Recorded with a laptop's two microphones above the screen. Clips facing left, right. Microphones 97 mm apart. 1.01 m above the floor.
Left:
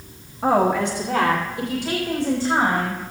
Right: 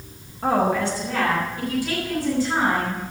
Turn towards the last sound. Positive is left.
turn(degrees=30)  # may be behind; listen again after turning